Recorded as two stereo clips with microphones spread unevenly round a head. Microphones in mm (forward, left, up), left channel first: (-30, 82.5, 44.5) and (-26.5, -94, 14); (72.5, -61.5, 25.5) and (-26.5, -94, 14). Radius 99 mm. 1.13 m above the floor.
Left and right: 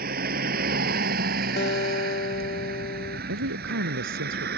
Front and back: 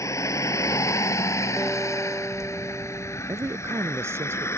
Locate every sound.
0.0 s a vehicle: 40° right; by 4.6 s 45° right
1.6 s a guitar: 110° left
3.3 s a woman speaking: 95° right